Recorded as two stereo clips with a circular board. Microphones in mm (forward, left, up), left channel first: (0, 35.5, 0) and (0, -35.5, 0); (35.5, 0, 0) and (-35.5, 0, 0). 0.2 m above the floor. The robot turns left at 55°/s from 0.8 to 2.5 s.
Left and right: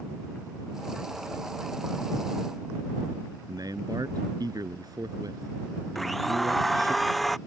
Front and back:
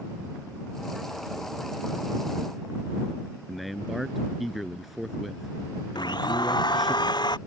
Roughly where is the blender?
Ahead.